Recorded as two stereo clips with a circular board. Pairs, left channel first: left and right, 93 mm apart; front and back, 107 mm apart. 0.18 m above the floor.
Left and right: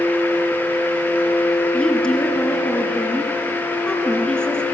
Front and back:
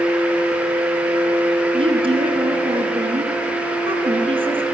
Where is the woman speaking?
170° left, 2.5 m.